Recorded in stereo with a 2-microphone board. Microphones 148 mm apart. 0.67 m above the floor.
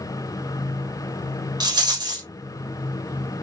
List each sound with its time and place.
1.6 s a rattle: 30° right (ahead or behind), 0.8 m